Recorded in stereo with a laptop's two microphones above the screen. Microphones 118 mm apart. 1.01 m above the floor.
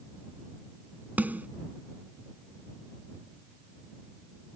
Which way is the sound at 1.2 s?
15° right (ahead or behind).